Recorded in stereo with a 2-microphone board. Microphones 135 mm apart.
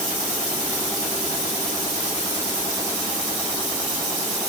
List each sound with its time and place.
Only background noise.